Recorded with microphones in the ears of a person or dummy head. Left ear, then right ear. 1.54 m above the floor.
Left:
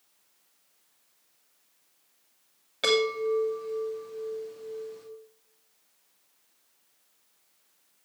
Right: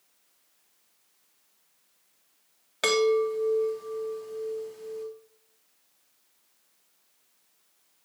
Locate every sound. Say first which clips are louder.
2.8 s a chime: right 2 dB; 30° right (ahead or behind), 3 m